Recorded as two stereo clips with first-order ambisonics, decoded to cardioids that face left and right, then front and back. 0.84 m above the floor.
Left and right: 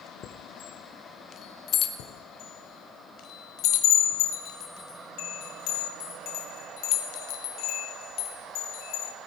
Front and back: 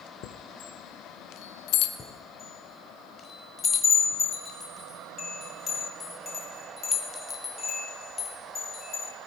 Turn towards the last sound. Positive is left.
turn(degrees=70)